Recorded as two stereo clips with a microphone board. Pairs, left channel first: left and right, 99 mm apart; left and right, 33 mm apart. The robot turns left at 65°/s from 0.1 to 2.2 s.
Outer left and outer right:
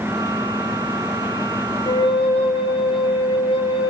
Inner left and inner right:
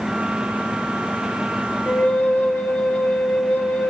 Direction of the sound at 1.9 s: 40° left (ahead or behind).